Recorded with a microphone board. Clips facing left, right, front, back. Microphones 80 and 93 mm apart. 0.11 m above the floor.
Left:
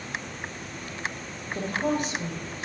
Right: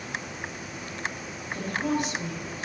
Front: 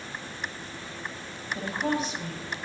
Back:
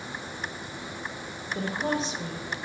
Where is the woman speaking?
145° left, 1.4 m.